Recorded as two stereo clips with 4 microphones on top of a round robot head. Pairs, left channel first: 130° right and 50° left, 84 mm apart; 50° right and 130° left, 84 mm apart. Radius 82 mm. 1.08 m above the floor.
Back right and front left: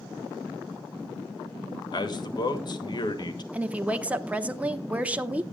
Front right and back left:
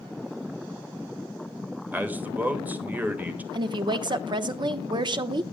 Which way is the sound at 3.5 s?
120° left.